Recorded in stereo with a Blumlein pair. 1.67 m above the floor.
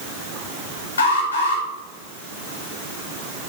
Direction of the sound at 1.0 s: 65° left.